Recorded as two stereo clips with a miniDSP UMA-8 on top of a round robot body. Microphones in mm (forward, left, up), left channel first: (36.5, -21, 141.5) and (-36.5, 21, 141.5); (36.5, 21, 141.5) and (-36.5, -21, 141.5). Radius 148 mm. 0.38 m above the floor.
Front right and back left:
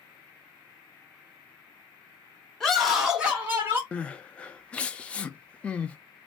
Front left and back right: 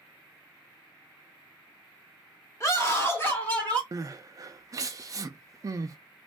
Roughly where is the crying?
Right.